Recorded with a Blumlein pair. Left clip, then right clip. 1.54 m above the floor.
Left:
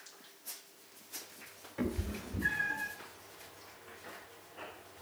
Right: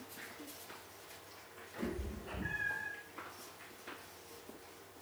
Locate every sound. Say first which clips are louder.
1.8 s a cat meowing: left 5 dB; 35° left, 3 m; by 2.9 s 30° left, 2.5 m